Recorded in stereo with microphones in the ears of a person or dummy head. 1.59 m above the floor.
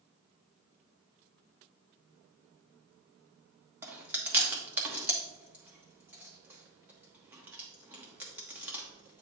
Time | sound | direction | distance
3.8 | chewing | 15° right (ahead or behind) | 1.0 m